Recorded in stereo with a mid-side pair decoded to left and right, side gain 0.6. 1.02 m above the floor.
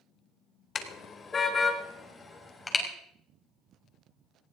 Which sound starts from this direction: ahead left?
A car horn, at 0.8 s.